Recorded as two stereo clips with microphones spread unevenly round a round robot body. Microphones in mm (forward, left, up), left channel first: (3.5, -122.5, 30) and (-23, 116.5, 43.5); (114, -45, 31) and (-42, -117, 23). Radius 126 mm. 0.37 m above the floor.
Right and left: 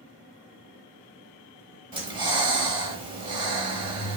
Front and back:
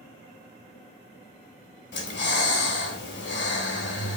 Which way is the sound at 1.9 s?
25° left.